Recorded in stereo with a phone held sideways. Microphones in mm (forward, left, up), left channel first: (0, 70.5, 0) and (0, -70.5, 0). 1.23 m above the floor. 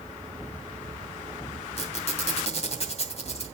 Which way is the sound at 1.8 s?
50° left (ahead or behind).